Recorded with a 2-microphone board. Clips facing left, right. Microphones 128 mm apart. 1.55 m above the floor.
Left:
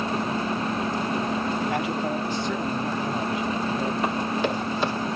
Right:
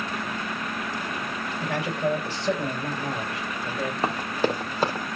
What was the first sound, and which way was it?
A man speaking, 80° right.